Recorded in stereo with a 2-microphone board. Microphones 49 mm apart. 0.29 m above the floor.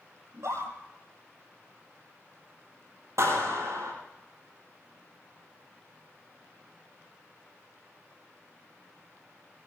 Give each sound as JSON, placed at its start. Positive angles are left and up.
{"t": 0.3, "sound": "a scream", "side_deg": -85, "distance_m": 8.5}
{"t": 3.2, "sound": "a clap", "side_deg": -80, "distance_m": 6.5}